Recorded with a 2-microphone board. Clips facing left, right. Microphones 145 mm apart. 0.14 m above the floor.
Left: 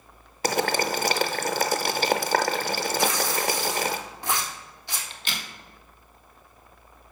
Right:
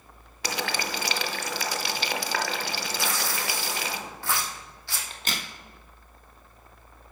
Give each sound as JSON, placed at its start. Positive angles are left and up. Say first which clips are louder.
{"t": 0.4, "sound": "boiling", "louder": "left 7 dB", "side_deg": 45, "distance_m": 0.6}
{"t": 3.0, "sound": "tearing paper", "louder": "left 5 dB", "side_deg": 20, "distance_m": 1.3}
{"t": 5.1, "sound": "a crack", "louder": "right 2 dB", "side_deg": -45, "distance_m": 1.3}